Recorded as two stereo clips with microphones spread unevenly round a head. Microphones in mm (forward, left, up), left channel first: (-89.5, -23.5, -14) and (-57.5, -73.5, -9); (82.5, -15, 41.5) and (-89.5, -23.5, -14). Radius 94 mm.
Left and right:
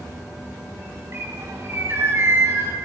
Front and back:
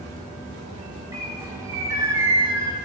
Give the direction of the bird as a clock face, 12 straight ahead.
3 o'clock.